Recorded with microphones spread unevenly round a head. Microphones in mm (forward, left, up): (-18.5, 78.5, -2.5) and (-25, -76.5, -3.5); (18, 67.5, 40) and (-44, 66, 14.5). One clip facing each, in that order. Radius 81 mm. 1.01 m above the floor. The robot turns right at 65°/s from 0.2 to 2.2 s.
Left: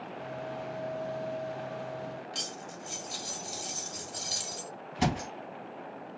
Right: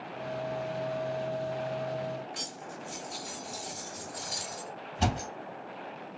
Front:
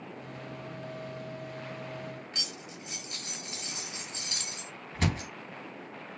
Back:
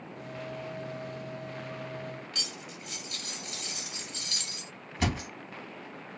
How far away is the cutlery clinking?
About 1.4 m.